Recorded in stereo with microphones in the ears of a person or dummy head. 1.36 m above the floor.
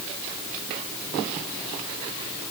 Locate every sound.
Only background noise.